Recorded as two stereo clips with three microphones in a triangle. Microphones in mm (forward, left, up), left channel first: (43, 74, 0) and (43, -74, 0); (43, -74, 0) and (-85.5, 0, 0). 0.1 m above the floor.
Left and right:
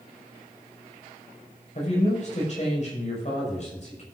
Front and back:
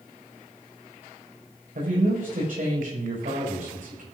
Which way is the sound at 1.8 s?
130° left.